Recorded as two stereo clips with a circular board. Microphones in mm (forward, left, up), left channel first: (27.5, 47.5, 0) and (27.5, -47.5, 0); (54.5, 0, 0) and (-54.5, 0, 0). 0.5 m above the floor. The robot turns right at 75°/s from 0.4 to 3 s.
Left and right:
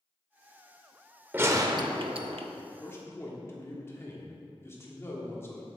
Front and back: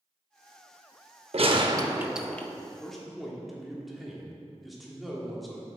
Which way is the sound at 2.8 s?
75° left.